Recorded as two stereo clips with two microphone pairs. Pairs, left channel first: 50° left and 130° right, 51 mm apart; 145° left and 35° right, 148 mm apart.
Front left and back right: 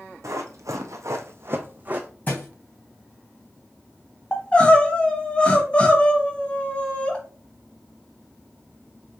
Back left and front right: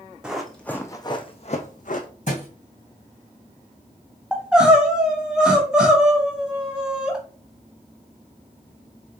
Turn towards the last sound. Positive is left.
turn(degrees=35)